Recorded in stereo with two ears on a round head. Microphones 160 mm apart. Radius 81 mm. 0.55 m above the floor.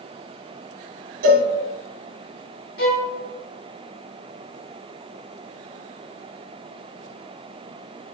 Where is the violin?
55° left (ahead or behind), 1.1 m.